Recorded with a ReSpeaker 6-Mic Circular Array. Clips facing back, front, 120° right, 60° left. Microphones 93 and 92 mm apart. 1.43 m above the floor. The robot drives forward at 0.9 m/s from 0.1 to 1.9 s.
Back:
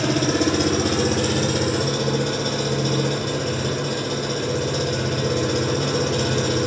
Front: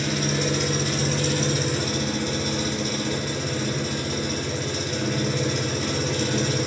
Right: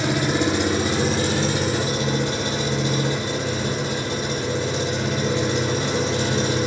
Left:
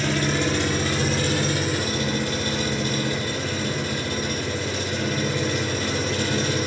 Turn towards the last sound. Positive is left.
turn(degrees=175)